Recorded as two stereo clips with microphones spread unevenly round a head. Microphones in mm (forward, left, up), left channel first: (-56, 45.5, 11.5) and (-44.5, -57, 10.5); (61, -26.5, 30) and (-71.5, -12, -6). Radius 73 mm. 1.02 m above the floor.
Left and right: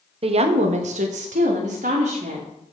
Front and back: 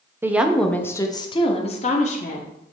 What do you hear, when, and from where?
0.2 s a woman speaking: 115° right, 0.9 m; by 2.5 s 40° right, 1.7 m